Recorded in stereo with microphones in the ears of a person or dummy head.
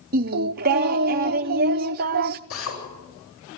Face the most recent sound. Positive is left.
turn(degrees=75)  # may be behind; listen again after turning